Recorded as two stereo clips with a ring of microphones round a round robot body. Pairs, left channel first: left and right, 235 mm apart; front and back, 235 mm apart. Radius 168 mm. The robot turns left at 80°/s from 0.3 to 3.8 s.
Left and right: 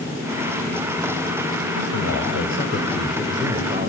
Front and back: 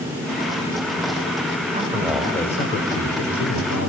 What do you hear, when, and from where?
1.7 s a man speaking: 125° left, 4 m; by 3.9 s 40° right, 4 m